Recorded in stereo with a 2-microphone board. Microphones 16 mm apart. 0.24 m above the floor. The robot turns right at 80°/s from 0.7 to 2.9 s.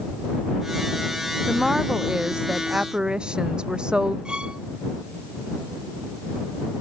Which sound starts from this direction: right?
A violin, at 4.2 s.